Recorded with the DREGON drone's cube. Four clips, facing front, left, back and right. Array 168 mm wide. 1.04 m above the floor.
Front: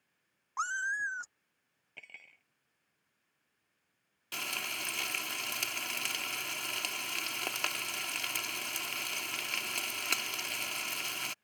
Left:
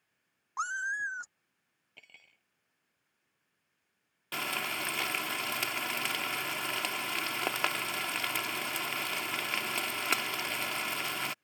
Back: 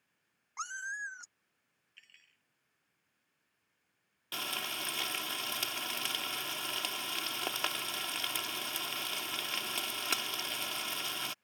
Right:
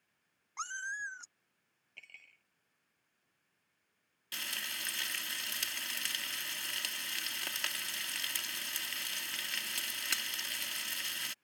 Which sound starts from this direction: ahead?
Cutlery clinking, at 2.0 s.